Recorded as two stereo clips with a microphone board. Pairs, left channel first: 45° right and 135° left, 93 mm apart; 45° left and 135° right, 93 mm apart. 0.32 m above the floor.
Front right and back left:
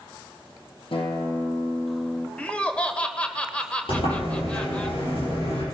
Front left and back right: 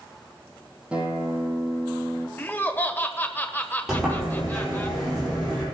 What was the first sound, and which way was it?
A guitar, 60° right.